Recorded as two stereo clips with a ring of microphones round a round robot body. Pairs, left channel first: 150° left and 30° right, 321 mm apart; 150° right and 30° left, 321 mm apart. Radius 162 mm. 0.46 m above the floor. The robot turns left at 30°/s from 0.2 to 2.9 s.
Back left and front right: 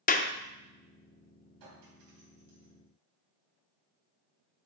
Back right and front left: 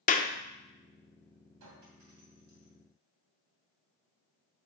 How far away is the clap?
About 0.5 m.